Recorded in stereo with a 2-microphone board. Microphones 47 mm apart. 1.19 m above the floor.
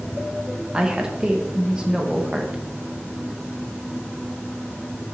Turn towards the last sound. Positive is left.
turn(degrees=-15)  # may be behind; listen again after turning